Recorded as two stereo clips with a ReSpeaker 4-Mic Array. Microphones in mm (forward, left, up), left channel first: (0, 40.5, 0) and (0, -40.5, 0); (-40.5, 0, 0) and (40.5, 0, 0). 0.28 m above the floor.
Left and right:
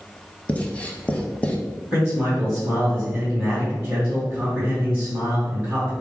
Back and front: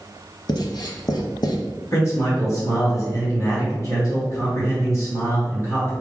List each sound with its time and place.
0.5 s writing: 165° left, 0.6 m
1.9 s a man speaking: 165° right, 1.9 m